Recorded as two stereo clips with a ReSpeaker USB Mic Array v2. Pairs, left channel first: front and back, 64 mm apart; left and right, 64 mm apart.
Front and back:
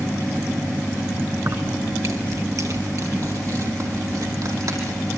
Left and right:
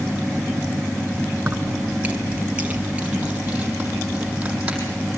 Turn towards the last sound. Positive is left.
turn(degrees=-160)